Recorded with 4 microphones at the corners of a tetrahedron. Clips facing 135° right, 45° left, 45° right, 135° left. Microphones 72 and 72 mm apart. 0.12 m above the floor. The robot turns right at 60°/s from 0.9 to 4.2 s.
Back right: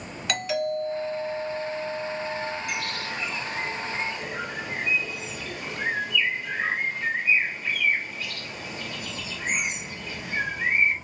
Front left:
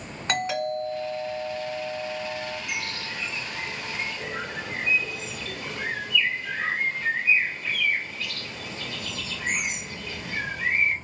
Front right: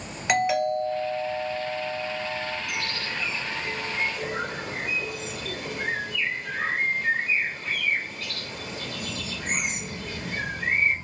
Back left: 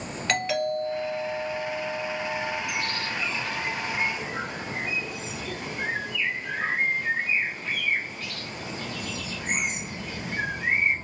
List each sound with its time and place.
0.3 s a doorbell: 25° left, 1.8 m; by 2.6 s 125° left, 1.8 m
2.7 s a bird: 155° right, 2.5 m; by 10.9 s 65° right, 2.5 m